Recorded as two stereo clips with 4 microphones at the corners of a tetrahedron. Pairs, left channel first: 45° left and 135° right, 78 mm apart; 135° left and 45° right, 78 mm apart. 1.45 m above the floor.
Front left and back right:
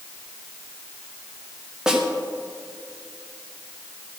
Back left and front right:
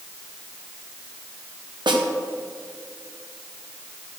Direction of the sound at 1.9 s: 55° right.